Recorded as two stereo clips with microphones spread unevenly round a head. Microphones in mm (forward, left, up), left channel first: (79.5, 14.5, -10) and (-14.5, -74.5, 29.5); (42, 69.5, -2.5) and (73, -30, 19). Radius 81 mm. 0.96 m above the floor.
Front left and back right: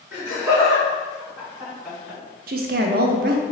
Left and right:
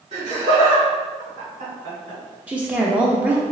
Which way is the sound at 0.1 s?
60° right.